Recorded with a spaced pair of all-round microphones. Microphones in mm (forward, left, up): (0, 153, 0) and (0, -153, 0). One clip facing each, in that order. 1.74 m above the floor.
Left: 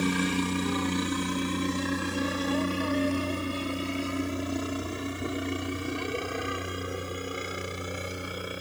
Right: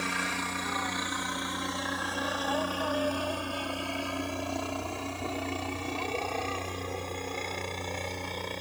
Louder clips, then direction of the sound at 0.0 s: Left 10 dB; 50° left (ahead or behind).